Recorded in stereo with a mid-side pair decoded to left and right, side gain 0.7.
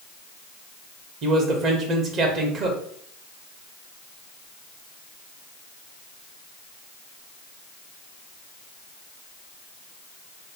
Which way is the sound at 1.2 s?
50° right.